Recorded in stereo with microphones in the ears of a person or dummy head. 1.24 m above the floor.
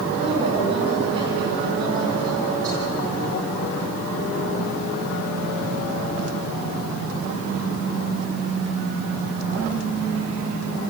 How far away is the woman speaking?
About 9.5 m.